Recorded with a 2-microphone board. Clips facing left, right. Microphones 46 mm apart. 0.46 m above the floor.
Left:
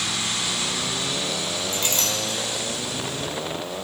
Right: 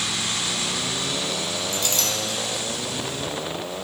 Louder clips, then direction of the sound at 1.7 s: Even; 40° left (ahead or behind).